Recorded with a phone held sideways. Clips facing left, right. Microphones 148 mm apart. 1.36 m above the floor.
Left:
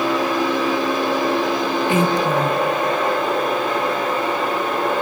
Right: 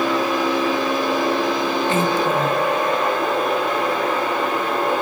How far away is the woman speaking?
About 1.2 m.